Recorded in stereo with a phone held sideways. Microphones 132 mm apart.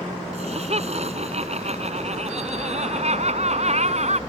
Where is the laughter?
55° right (ahead or behind); by 4.2 s 60° right (ahead or behind).